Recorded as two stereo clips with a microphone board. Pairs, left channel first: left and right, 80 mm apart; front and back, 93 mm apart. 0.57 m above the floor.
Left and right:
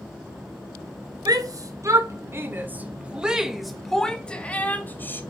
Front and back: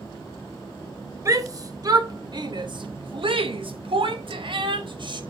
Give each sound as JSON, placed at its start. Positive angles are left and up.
{"t": 1.2, "sound": "a shout", "azimuth_deg": -125, "distance_m": 2.0}